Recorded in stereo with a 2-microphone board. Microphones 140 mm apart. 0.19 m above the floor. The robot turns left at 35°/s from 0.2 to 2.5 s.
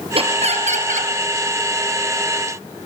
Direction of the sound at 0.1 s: 45° right.